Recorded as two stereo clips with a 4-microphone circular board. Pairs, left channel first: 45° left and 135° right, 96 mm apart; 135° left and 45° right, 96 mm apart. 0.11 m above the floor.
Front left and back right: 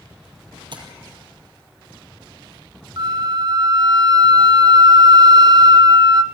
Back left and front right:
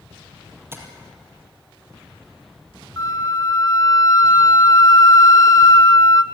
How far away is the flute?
About 0.6 m.